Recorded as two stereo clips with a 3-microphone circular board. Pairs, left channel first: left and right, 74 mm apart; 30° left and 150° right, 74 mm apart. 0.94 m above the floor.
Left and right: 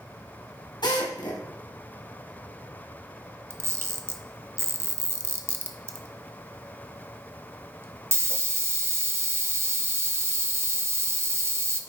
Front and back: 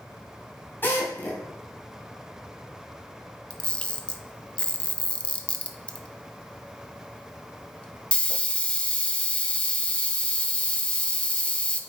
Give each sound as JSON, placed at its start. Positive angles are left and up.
{"t": 0.8, "sound": "a drill", "azimuth_deg": 90, "distance_m": 3.0}
{"t": 3.5, "sound": "a camera shutter", "azimuth_deg": -45, "distance_m": 0.8}